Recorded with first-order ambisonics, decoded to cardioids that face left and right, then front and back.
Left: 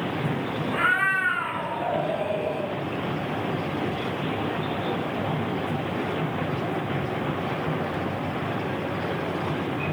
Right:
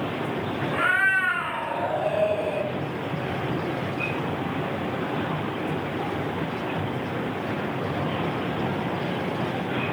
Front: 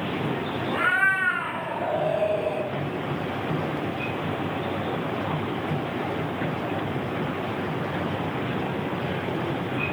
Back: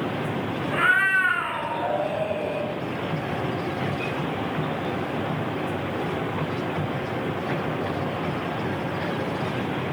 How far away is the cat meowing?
About 0.8 m.